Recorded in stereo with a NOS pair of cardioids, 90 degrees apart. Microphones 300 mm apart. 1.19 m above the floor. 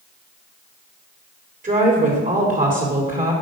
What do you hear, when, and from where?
1.6 s a woman speaking: 25° right, 3 m